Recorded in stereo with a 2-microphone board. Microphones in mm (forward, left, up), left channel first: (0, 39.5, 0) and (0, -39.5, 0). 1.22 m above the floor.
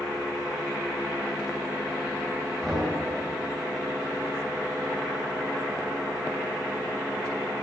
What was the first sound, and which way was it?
Knocking, 5° right (ahead or behind).